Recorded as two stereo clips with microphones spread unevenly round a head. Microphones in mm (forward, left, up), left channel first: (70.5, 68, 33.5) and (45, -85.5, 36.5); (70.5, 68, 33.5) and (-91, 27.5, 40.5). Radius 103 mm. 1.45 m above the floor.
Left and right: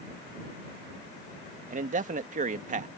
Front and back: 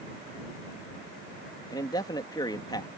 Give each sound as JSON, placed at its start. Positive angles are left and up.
{"t": 1.7, "sound": "a man speaking", "azimuth_deg": -60}